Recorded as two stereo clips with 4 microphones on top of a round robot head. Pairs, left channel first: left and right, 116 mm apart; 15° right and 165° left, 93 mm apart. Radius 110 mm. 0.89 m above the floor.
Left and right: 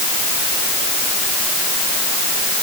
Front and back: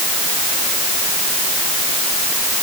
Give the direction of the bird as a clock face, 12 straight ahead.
No bird in this recording.